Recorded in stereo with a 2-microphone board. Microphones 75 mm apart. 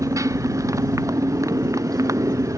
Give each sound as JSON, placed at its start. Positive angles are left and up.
{"t": 0.0, "sound": "a motorcycle", "side_deg": -45}